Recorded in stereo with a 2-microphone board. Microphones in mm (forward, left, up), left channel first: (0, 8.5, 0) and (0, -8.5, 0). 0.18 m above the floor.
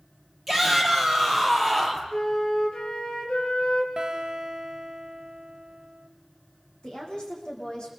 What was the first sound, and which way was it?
A shout, 10° left (ahead or behind).